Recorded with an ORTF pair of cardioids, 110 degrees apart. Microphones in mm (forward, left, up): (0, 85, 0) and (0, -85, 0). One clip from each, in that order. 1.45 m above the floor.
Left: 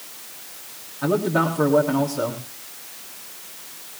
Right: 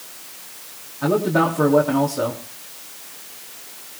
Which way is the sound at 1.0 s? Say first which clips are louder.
Right 2 dB; 10° right.